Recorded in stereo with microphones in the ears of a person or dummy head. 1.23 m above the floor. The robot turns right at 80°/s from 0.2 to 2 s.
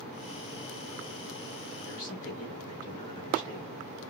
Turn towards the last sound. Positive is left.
turn(degrees=45)  # may be behind; listen again after turning